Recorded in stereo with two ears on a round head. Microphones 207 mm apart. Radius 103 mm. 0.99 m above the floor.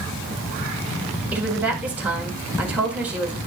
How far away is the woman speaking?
About 1.9 m.